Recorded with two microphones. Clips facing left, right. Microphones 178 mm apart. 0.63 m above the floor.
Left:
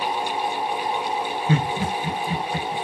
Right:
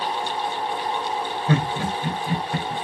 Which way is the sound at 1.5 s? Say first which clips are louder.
Right 1 dB; 70° right (ahead or behind).